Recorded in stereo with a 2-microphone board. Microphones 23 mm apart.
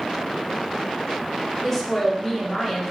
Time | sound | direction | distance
1.6 | a woman speaking | 15° left (ahead or behind) | 0.8 m